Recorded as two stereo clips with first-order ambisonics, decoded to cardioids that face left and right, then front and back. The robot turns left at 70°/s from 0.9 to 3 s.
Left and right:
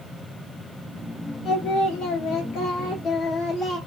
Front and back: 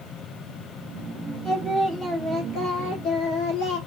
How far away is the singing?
About 0.9 m.